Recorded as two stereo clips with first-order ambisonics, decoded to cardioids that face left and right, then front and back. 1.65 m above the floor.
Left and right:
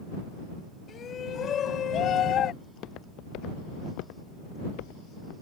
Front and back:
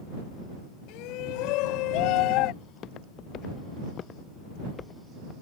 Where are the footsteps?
45° left; by 5.3 s 75° left.